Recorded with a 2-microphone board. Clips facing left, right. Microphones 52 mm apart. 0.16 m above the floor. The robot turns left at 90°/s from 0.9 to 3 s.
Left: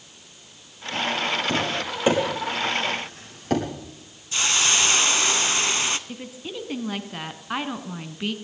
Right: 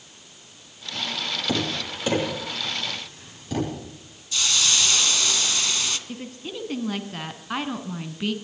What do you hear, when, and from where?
1.5 s tapping: 20° right (ahead or behind), 6.5 m; by 3.6 s 60° left (ahead or behind), 6.5 m
4.3 s a hiss: 35° left (ahead or behind), 0.8 m
6.1 s a woman speaking: 5° left (ahead or behind), 1.4 m